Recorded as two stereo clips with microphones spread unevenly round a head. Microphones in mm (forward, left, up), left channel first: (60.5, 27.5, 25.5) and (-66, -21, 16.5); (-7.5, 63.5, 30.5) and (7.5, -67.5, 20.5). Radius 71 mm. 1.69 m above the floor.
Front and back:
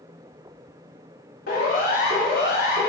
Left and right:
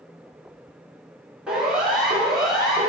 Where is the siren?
Straight ahead, 4.5 m; by 2.9 s 5° left, 6 m.